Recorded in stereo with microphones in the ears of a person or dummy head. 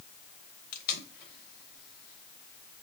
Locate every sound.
0.7 s tape being pulled: 50° left (ahead or behind), 0.7 m